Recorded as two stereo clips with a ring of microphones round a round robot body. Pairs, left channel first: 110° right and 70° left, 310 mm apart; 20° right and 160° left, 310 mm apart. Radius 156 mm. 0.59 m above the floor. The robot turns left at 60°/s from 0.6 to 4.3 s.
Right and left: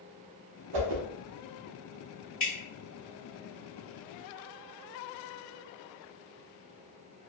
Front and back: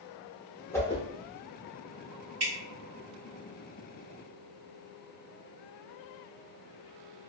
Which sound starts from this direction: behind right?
Dripping, at 2.4 s.